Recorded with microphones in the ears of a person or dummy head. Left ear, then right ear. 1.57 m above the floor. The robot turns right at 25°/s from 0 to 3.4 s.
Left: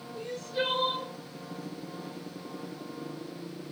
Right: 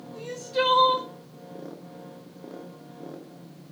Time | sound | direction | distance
0.1 | crying | 20° right (ahead or behind) | 0.6 m